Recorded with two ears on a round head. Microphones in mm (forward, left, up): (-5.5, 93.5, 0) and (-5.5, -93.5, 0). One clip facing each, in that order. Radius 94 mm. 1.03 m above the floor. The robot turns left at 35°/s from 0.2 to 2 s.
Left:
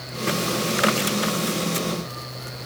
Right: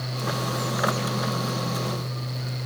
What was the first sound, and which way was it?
Only background noise.